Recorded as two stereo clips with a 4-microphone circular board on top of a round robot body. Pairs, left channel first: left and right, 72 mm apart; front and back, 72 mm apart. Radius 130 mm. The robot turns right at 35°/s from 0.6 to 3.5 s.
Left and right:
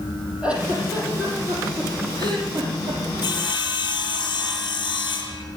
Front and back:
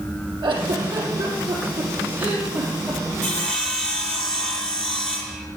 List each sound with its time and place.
0.4 s a giggle: 165° right, 5 m; by 3.0 s 80° right, 5 m
3.2 s sawing: 70° left, 6.5 m; by 5.4 s 80° left, 6.5 m